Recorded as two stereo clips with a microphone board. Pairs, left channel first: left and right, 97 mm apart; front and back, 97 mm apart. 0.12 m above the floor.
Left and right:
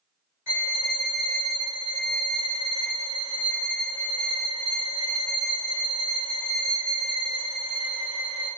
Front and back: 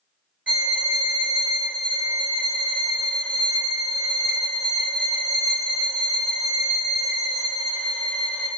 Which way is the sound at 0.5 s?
120° right.